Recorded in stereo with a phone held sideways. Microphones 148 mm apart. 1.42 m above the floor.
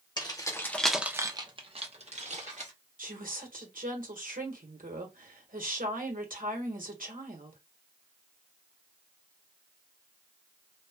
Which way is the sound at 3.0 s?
80° right.